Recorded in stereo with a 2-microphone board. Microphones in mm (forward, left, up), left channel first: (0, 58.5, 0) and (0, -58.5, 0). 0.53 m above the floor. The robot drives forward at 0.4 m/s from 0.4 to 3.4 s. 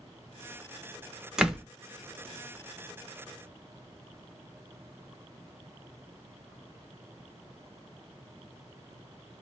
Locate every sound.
1.4 s a door slam: 5° right (ahead or behind), 0.7 m